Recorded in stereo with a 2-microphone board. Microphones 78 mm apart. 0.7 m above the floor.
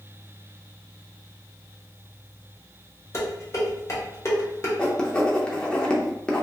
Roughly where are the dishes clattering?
Left.